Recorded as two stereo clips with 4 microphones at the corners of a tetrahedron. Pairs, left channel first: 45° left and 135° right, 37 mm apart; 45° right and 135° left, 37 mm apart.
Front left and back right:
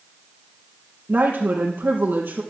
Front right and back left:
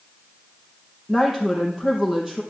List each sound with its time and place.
1.1 s a woman speaking: 145° right, 4 m